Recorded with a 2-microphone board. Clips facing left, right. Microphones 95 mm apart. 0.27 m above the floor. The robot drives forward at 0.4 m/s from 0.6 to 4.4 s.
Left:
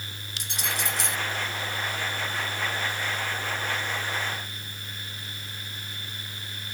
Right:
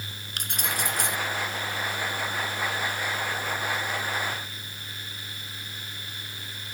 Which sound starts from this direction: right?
Keys jangling, at 0.4 s.